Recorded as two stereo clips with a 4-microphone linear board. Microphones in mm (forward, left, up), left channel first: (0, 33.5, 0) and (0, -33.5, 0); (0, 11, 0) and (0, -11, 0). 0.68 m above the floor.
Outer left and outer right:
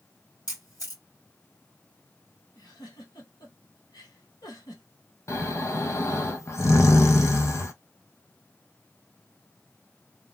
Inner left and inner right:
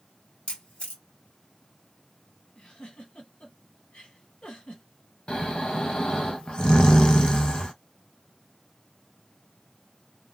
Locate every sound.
0.5 s a camera shutter: 80° left, 2 m
2.5 s a giggle: 80° left, 1.8 m
5.3 s snoring: 45° left (ahead or behind), 0.7 m